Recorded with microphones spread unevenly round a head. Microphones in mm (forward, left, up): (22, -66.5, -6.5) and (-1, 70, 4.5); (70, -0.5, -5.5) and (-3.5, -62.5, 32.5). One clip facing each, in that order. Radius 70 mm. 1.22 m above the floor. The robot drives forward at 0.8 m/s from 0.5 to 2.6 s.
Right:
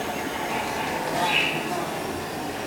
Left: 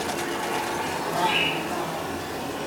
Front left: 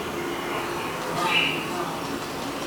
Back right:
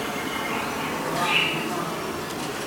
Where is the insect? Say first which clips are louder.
Left 1 dB, even; 145° right, 3 m; by 2.7 s 160° right, 4.5 m.